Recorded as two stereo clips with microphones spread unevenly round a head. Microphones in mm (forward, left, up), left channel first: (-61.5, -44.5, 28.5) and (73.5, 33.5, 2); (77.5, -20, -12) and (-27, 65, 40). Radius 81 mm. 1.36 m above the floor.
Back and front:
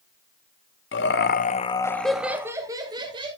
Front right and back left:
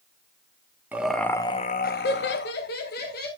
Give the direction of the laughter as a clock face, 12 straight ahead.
5 o'clock.